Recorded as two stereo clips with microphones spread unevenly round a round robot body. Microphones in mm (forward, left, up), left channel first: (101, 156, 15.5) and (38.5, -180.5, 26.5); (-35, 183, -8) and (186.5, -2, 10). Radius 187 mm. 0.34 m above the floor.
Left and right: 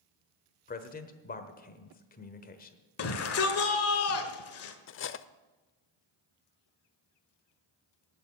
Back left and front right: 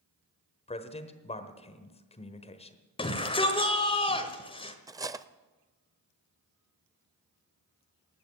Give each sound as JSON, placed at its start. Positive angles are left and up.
{"t": 0.7, "sound": "a man speaking", "azimuth_deg": 105, "distance_m": 1.1}
{"t": 3.0, "sound": "a shout", "azimuth_deg": 80, "distance_m": 1.3}
{"t": 4.9, "sound": "cutlery clinking", "azimuth_deg": 40, "distance_m": 0.6}